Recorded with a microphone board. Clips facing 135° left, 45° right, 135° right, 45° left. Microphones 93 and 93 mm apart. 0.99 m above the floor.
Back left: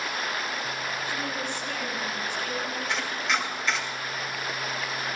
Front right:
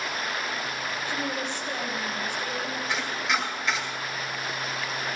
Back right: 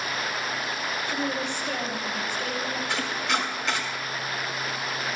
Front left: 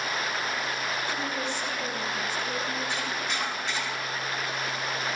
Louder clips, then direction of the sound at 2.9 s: Front right 1 dB, back right 4 dB; 130° right.